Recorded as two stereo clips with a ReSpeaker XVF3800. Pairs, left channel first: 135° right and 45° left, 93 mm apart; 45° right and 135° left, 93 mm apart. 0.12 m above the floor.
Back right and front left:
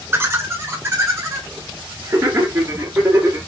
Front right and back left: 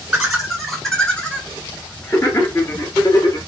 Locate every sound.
0.1 s laughter: 70° left, 1.4 m; by 3.4 s 10° right, 2 m